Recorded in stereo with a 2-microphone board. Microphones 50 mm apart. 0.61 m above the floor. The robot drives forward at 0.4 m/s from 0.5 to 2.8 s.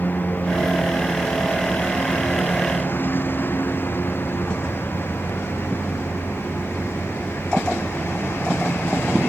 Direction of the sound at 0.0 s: 35° left (ahead or behind).